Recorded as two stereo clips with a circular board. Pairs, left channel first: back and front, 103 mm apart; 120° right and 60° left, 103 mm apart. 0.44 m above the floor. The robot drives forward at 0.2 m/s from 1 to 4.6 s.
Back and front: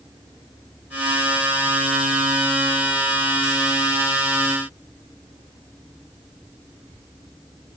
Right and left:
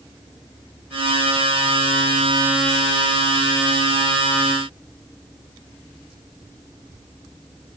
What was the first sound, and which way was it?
Only background noise.